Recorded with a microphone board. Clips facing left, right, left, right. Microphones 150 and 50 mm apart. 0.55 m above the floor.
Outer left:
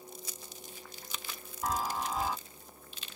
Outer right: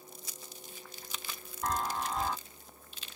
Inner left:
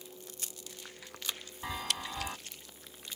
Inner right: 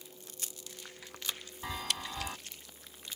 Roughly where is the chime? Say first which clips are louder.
Even, inner left 1 dB; centre.